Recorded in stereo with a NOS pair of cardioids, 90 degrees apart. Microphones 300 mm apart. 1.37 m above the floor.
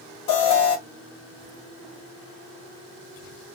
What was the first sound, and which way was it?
An alarm, 65° left.